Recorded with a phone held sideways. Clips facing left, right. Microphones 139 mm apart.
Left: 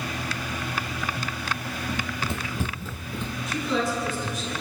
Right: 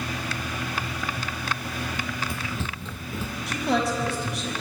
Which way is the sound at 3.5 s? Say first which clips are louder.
Right 2 dB; 75° right (ahead or behind).